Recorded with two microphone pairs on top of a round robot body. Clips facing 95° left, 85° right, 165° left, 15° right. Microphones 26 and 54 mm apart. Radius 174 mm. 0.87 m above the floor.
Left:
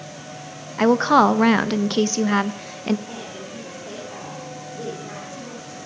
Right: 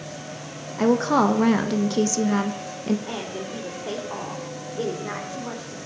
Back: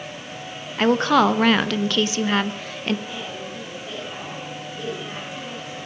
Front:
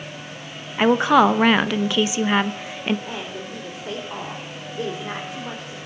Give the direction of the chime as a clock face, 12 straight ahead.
I don't hear a chime.